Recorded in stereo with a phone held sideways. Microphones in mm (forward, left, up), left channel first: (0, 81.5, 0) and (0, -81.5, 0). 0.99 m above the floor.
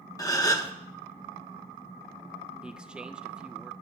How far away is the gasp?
About 0.9 m.